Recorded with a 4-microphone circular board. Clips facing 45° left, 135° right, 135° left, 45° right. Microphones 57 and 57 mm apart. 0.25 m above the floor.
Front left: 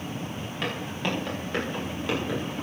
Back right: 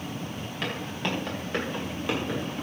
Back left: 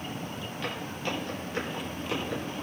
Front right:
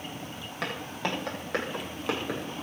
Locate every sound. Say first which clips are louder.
0.6 s footsteps: front left 1 dB, front right 3 dB; 40° right, 9 m; by 2.6 s 50° right, 8 m